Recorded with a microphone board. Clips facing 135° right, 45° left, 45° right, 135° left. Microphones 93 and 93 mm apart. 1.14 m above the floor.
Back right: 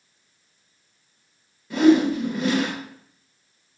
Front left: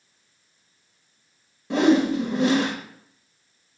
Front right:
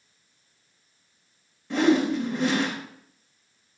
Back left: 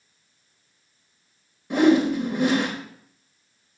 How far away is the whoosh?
About 1.7 m.